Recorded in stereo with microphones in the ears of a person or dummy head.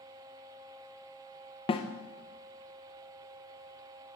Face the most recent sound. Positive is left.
turn(degrees=25)  # may be behind; listen again after turning